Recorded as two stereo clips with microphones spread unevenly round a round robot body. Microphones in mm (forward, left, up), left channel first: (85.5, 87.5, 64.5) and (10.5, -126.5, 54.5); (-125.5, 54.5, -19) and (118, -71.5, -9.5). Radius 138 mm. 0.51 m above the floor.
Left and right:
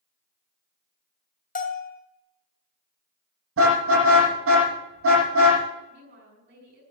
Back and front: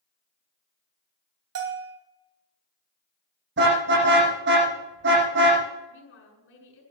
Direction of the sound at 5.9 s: 160° right.